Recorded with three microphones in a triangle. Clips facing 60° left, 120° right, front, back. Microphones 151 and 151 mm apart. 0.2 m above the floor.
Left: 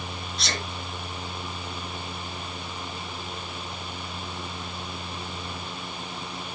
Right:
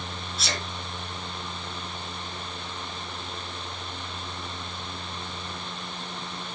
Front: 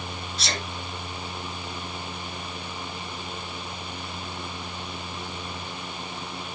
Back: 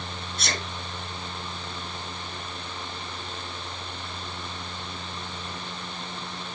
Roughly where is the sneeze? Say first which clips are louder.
Even, even; behind left.